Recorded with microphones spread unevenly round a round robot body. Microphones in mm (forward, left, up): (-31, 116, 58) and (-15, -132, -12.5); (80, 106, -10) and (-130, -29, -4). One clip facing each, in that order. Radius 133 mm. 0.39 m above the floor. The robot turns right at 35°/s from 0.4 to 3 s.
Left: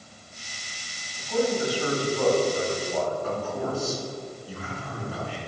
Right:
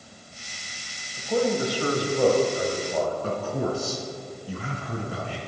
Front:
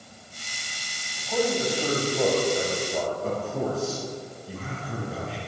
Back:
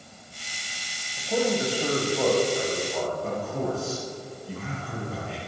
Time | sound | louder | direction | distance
1.2 | a man speaking | right 1 dB, back 1 dB | 85° right | 2.0 m
3.2 | a man speaking | right 2 dB, front 1 dB | 55° right | 3.5 m